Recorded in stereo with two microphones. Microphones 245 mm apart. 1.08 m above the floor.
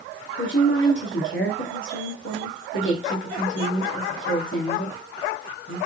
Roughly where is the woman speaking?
Left.